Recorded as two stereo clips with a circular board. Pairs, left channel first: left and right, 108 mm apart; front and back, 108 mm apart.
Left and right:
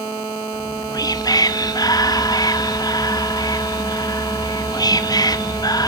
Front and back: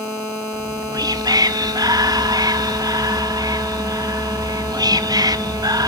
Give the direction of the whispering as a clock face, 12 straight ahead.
8 o'clock.